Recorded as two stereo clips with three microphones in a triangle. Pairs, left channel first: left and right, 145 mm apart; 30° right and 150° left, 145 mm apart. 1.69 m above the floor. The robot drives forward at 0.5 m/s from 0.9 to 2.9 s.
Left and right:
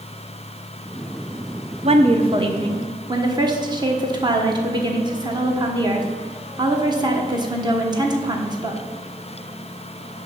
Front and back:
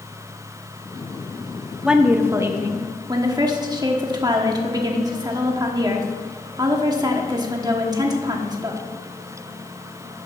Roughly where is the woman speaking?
Behind right.